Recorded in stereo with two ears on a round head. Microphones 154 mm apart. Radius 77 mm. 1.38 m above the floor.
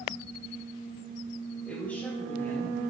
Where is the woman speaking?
5° left (ahead or behind), 3 m; by 2.8 s 20° left (ahead or behind), 4 m.